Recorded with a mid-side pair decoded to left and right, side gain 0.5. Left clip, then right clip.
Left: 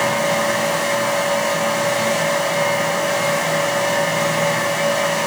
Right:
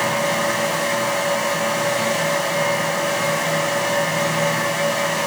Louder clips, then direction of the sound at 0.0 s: Left 2 dB; 10° left.